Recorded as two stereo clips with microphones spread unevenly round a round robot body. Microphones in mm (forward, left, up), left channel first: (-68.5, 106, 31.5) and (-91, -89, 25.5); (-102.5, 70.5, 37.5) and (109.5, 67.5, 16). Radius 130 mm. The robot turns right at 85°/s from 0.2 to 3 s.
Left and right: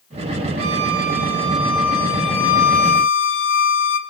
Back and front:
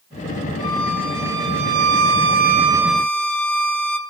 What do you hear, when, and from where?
0.6 s a violin: 110° right, 0.8 m; by 4.0 s 95° left, 0.8 m